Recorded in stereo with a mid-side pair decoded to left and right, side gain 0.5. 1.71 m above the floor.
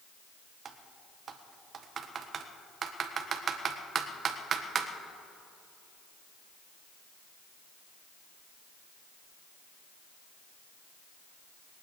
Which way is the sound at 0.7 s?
45° right.